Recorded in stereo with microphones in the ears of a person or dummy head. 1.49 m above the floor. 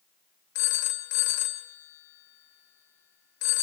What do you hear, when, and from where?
0.6 s a phone ringing: 55° left (ahead or behind), 1.6 m